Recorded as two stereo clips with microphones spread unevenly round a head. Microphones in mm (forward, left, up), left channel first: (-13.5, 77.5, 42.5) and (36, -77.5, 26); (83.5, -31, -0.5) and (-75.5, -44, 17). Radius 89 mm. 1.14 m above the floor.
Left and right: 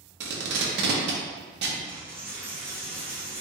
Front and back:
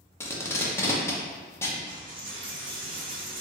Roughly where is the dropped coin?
Behind right.